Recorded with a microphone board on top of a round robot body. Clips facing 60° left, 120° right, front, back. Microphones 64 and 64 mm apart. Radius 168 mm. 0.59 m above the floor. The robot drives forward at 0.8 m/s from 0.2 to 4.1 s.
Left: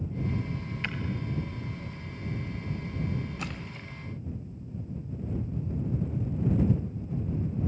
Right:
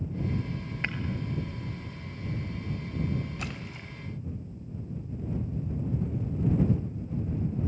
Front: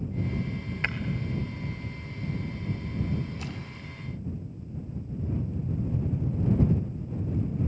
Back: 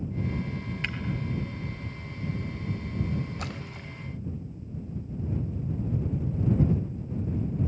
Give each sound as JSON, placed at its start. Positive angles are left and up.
{"t": 0.8, "sound": "breaking glass", "azimuth_deg": -55, "distance_m": 1.0}
{"t": 3.4, "sound": "a splash", "azimuth_deg": 145, "distance_m": 1.0}